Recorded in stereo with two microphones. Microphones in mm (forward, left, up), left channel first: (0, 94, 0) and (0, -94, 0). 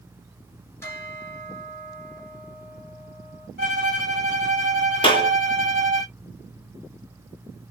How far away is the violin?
About 1.2 m.